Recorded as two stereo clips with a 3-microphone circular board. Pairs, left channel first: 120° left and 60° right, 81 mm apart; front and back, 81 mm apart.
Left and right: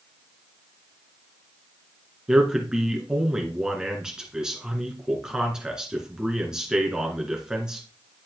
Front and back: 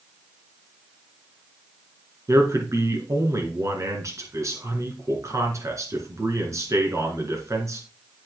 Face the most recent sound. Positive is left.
turn(degrees=-140)